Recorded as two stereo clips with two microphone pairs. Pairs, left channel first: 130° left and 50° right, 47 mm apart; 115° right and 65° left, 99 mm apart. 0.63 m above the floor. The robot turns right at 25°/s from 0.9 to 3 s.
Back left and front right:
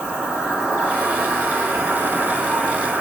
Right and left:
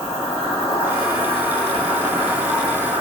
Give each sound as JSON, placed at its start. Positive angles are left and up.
{"t": 0.0, "sound": "an insect", "azimuth_deg": -70, "distance_m": 1.5}